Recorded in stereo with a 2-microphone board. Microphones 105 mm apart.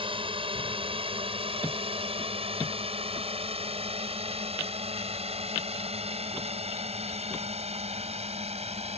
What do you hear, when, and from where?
0.0 s a drone: 60° right (ahead or behind); by 9.0 s 80° right